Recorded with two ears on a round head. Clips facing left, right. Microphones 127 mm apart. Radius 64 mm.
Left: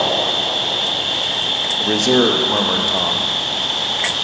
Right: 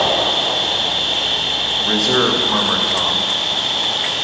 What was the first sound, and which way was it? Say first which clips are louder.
An insect: right 2 dB; 5° right (ahead or behind).